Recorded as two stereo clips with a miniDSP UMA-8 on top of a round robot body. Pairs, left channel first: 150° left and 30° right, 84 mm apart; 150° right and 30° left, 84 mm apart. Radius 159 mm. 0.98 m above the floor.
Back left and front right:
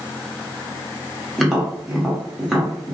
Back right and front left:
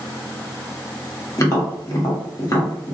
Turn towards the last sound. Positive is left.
turn(degrees=-115)